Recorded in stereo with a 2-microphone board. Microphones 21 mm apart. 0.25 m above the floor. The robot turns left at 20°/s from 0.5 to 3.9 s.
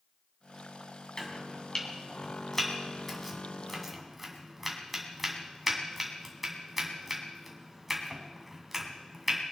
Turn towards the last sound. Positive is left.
turn(degrees=-10)  # may be behind; listen again after turning